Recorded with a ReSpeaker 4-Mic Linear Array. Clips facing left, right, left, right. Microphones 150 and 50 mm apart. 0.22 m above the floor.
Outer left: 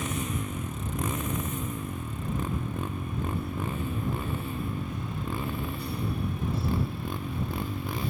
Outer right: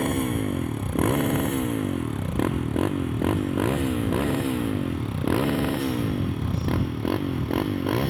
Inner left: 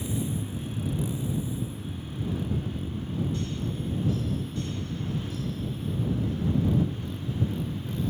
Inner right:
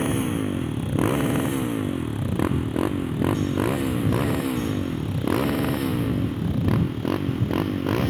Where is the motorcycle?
55° right (ahead or behind); by 8.1 s 70° right (ahead or behind).